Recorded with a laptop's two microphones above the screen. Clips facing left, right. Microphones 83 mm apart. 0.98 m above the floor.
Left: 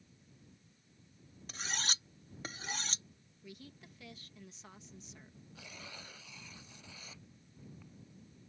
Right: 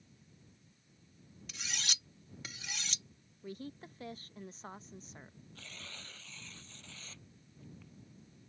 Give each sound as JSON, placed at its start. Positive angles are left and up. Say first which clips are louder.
{"t": 1.5, "sound": "cutlery clinking", "louder": "left 3 dB", "side_deg": 35}
{"t": 3.4, "sound": "a woman speaking", "louder": "right 8 dB", "side_deg": -35}
{"t": 5.5, "sound": "tearing paper", "louder": "left 2 dB", "side_deg": 10}